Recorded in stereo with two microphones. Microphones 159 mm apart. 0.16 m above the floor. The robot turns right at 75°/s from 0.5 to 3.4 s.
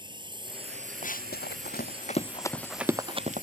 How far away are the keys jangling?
I don't hear keys jangling.